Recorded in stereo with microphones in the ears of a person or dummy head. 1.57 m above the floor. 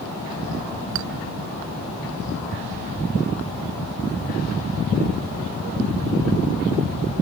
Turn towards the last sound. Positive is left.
turn(degrees=-70)  # may be behind; listen again after turning